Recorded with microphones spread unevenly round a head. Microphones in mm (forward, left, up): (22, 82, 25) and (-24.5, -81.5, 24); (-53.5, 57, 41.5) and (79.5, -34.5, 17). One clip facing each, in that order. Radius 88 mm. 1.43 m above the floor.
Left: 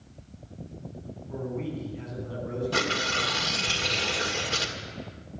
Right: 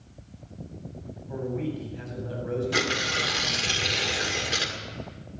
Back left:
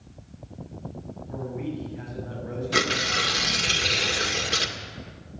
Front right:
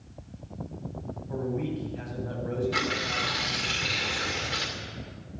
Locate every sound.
1.3 s a man speaking: 80° right, 8 m; by 3.7 s 95° right, 7.5 m
2.7 s tearing paper: straight behind, 1.9 m